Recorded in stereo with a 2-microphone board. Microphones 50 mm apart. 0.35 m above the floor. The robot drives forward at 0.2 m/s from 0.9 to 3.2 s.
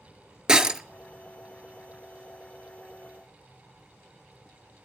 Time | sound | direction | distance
0.5 | breaking glass | 15° right (ahead or behind) | 0.5 m